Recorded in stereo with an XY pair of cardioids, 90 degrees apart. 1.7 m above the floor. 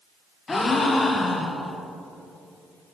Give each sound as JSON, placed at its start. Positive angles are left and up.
{"t": 0.5, "sound": "a gasp", "azimuth_deg": 30, "distance_m": 1.2}